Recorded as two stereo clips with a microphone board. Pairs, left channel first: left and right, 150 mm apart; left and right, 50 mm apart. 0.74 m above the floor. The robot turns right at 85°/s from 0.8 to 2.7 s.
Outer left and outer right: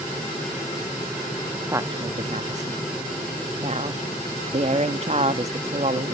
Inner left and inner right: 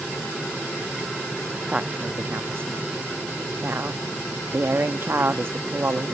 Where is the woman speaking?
155° right, 1.1 m; by 6.2 s 70° right, 1.1 m.